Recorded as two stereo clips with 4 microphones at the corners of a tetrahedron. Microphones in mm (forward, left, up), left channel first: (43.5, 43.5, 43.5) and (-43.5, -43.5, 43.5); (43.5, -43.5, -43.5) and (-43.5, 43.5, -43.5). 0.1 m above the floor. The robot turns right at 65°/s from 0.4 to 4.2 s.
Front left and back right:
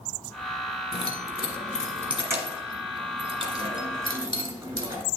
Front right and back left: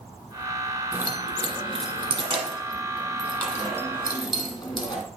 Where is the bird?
I don't hear a bird.